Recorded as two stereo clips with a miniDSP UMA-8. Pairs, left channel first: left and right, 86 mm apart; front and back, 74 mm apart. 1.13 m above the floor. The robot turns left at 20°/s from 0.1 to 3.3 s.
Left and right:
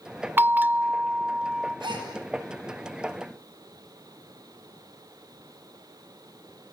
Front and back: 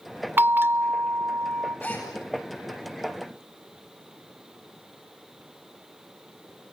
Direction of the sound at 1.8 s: 60° right.